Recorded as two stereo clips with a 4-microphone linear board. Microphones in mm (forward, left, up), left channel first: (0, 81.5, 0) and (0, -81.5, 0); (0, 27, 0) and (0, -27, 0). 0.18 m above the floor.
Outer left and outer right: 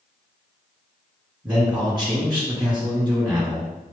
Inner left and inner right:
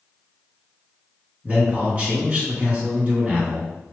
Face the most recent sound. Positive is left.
turn(degrees=-30)  # may be behind; listen again after turning